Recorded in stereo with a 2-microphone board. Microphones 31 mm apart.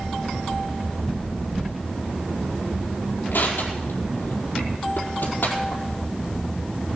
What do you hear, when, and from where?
3.3 s crushing: 85° left, 4.5 m